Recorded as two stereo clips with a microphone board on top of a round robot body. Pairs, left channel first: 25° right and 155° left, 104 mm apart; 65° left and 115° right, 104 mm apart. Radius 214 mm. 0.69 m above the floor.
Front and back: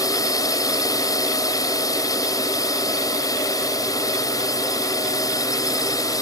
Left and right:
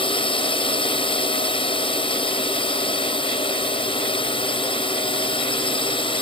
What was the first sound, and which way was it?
A drone, 35° left.